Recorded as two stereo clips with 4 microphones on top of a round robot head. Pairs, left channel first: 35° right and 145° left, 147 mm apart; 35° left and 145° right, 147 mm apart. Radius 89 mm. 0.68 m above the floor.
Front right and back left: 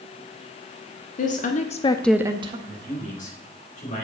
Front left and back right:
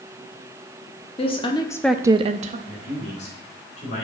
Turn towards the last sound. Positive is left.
turn(degrees=-5)